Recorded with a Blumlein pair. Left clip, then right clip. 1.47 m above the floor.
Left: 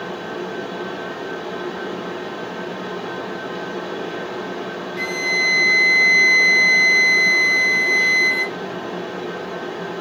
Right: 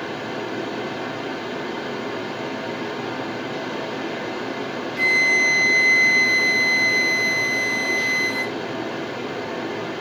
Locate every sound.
0.0 s a fan: 50° right, 1.8 m
5.0 s a flute: 10° right, 0.7 m